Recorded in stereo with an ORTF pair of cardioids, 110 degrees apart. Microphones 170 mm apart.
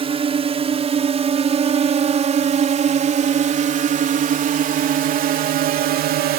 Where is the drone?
35° right; by 6.4 s 70° right.